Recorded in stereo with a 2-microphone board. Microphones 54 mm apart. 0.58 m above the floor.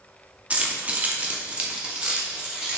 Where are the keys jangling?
25° right (ahead or behind), 0.6 m; by 2.8 s 15° right (ahead or behind), 1.4 m.